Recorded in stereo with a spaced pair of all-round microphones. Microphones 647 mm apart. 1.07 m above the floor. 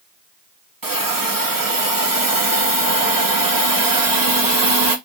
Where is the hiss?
35° right (ahead or behind), 0.7 m.